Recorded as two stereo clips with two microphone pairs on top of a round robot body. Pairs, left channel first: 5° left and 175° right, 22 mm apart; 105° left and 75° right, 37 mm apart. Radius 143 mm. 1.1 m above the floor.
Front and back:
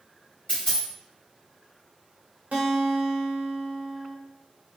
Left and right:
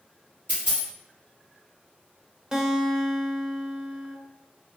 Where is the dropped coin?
15° right, 0.8 m.